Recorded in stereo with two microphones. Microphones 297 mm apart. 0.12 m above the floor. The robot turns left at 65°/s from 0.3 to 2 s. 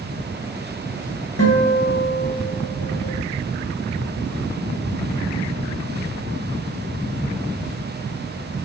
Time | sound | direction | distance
1.4 | a guitar | 130° left | 1.3 m